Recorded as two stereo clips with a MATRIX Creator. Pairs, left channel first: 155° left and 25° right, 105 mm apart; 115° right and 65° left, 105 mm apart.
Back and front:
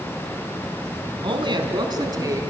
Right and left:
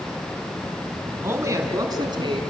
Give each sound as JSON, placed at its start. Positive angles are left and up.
{"t": 1.2, "sound": "a woman speaking", "azimuth_deg": 5, "distance_m": 3.0}